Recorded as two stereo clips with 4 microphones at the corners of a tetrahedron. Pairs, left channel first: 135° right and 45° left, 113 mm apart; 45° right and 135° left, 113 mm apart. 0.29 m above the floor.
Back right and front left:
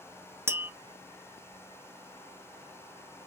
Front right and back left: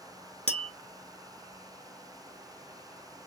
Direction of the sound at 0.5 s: 110° left.